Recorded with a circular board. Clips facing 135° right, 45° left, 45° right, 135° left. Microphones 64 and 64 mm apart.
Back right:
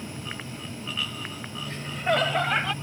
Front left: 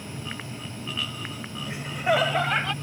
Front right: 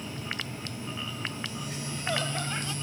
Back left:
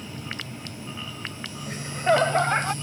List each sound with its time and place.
1.7 s laughter: 115° left; by 2.7 s 140° left